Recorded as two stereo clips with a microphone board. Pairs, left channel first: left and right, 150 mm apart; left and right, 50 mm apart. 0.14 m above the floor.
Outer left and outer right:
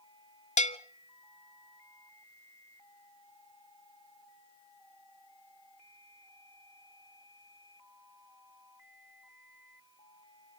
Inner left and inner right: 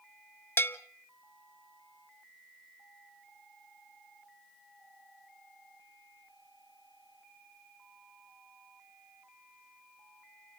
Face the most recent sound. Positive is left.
turn(degrees=50)  # may be behind; listen again after turning